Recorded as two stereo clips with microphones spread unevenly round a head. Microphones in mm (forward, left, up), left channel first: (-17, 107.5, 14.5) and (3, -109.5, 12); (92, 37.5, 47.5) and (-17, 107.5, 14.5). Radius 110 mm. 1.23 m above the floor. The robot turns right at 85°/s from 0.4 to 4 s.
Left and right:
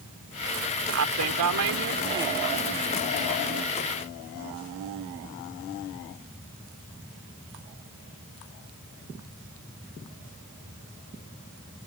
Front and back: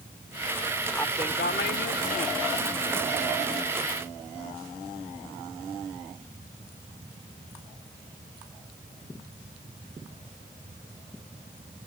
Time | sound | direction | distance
0.9 | a woman speaking | 120° right | ?